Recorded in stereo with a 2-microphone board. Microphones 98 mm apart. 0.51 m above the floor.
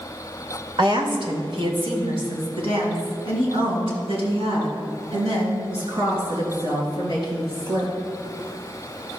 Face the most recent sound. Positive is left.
turn(degrees=-75)  # may be behind; listen again after turning